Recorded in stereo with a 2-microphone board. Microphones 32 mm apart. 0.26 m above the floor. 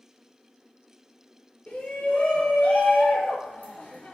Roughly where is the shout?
Left.